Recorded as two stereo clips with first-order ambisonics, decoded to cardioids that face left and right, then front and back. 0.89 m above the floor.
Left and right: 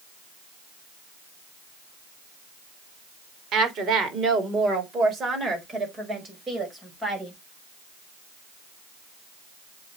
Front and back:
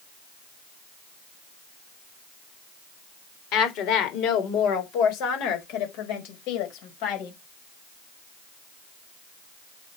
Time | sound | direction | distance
3.5 | a woman speaking | 35° right | 3.5 m